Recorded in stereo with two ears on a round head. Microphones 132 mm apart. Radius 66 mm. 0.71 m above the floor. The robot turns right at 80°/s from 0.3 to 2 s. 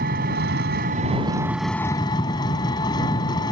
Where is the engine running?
110° right; by 3.5 s 30° left.